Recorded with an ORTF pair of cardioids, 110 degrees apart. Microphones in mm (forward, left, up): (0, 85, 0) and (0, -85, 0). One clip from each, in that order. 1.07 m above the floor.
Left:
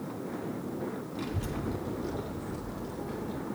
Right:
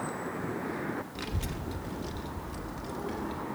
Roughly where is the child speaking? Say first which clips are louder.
Left 2 dB; ahead right.